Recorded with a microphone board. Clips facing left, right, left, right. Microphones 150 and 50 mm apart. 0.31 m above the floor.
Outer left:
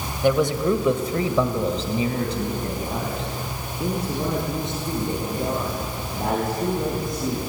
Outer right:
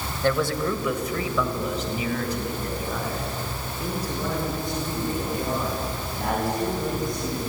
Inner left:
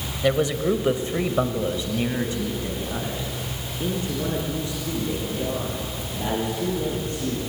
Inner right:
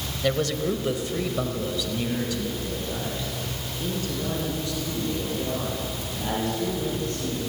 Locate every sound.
0.2 s a man speaking: 15° left (ahead or behind), 1.6 m; by 7.4 s 20° left (ahead or behind), 9 m